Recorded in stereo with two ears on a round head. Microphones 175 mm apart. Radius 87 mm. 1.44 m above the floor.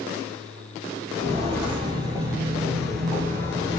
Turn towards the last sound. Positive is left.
turn(degrees=20)  # may be behind; listen again after turning